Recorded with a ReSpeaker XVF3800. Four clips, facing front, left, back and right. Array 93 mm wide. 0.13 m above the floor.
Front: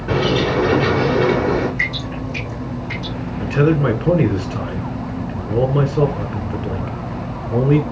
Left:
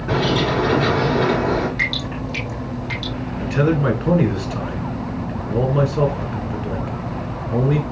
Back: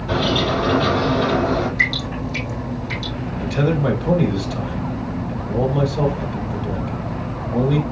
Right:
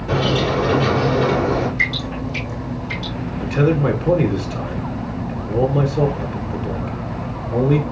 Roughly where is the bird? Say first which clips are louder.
Even, front 2 dB; ahead left.